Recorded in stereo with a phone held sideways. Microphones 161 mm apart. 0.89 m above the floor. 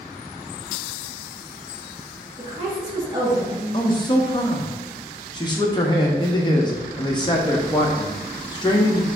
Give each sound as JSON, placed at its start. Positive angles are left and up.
{"t": 2.4, "sound": "a woman speaking", "side_deg": -25, "distance_m": 1.4}
{"t": 3.7, "sound": "a man speaking", "side_deg": 25, "distance_m": 0.7}